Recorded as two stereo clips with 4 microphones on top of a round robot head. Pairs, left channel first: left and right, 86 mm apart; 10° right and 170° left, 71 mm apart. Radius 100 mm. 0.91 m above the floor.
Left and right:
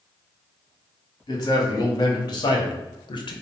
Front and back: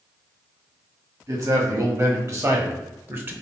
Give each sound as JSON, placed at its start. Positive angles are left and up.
{"t": 1.3, "sound": "a man speaking", "azimuth_deg": 135, "distance_m": 1.9}